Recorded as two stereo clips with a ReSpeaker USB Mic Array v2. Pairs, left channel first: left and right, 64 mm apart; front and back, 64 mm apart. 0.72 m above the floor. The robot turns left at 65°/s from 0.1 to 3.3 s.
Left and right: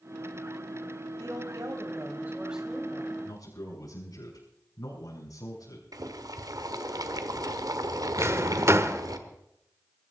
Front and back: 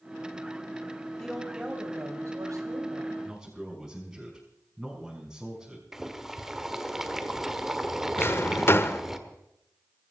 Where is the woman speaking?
80° right, 3.5 m; by 3.1 s 155° left, 3.5 m.